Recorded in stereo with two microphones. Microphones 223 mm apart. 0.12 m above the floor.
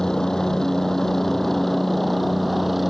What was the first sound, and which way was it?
A helicopter, 5° left (ahead or behind).